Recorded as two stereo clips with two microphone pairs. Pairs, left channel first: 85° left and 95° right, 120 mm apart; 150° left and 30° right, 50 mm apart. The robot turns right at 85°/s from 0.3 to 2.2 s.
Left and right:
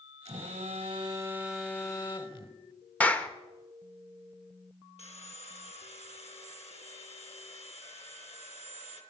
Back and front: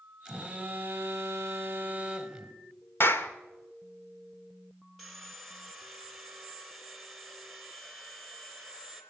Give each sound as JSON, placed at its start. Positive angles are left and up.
{"t": 0.2, "sound": "a phone buzzing", "azimuth_deg": -110, "distance_m": 2.0}
{"t": 3.0, "sound": "a clap", "azimuth_deg": 160, "distance_m": 1.5}
{"t": 5.0, "sound": "sawing", "azimuth_deg": 60, "distance_m": 3.0}